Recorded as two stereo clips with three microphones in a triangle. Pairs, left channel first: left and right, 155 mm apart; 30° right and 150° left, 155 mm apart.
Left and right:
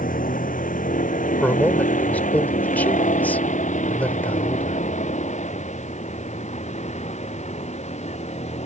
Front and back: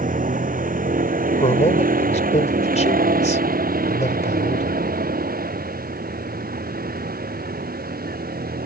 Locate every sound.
0.0 s a vehicle: 120° left; by 8.7 s 135° left
1.4 s a man speaking: 10° left